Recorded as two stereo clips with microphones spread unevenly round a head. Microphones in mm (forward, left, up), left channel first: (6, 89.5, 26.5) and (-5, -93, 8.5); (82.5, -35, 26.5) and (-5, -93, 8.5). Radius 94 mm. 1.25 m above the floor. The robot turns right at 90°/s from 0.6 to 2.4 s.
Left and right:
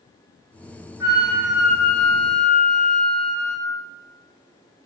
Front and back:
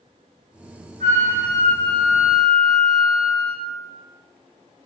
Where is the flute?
175° right, 0.6 m; by 3.6 s 50° right, 0.6 m.